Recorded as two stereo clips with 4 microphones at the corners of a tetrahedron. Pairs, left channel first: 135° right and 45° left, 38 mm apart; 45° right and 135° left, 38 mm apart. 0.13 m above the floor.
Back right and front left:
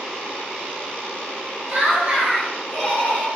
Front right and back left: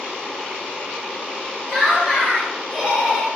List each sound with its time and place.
1.7 s laughter: 80° left, 1.2 m; by 3.3 s 145° right, 1.5 m